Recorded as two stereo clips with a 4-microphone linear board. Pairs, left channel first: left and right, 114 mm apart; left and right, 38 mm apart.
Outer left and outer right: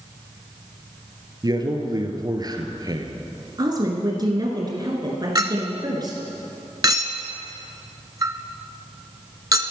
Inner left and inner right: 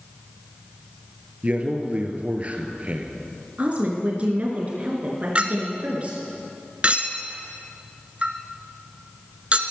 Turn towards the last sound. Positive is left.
turn(degrees=-35)  # may be behind; listen again after turning